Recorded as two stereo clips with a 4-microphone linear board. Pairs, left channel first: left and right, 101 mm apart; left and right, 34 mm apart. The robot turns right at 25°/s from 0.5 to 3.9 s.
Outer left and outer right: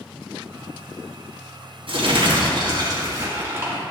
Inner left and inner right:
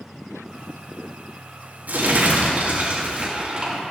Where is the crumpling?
75° right, 4.5 m; by 3.8 s 25° right, 4.5 m.